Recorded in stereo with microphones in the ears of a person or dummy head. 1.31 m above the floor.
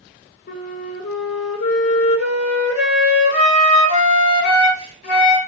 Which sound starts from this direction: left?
A flute, at 0.5 s.